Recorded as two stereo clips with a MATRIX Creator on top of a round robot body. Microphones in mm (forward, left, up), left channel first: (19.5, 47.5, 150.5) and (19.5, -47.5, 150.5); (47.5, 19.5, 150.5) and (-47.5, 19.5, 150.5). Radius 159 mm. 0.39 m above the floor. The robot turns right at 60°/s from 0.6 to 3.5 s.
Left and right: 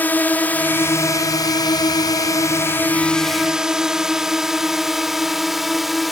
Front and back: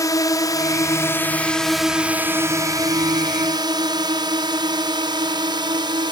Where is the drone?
30° left; by 6.1 s straight behind.